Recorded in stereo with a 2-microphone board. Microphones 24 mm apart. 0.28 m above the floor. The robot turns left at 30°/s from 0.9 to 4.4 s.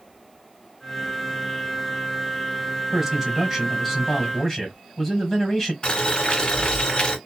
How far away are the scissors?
No scissors in this recording.